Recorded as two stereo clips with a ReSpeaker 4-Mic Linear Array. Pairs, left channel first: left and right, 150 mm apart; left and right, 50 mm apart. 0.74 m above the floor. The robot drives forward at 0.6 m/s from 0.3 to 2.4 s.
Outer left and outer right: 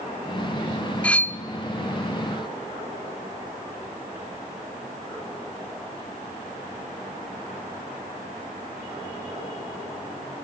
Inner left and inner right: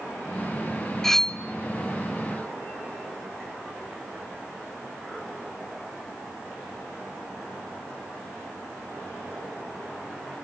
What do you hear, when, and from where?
1.0 s cutlery clinking: 10° left (ahead or behind), 0.8 m